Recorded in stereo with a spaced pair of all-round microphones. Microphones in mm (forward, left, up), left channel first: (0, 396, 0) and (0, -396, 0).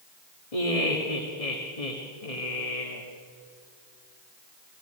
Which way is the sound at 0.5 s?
45° left (ahead or behind).